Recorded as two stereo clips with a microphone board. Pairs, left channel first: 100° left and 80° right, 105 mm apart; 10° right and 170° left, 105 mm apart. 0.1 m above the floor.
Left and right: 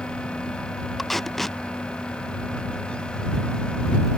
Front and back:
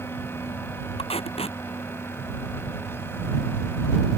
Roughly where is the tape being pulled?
Ahead.